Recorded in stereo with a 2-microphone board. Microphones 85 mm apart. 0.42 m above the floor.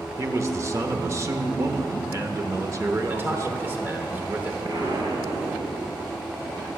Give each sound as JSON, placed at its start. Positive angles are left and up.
{"t": 0.2, "sound": "a man speaking", "side_deg": -35, "distance_m": 0.8}
{"t": 3.1, "sound": "a man speaking", "side_deg": -25, "distance_m": 1.2}
{"t": 4.7, "sound": "an explosion", "side_deg": -45, "distance_m": 1.6}